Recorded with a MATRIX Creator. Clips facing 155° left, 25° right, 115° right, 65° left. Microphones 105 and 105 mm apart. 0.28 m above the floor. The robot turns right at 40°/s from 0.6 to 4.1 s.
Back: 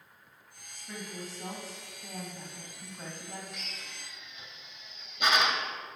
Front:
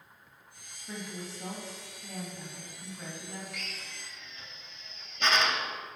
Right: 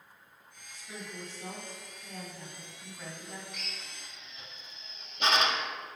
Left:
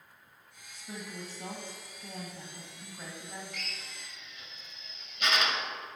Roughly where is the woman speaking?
Ahead left.